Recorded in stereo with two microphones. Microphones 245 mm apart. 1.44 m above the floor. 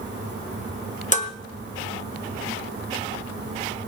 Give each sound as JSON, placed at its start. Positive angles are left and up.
{"t": 1.1, "sound": "dishes clattering", "side_deg": 30, "distance_m": 1.2}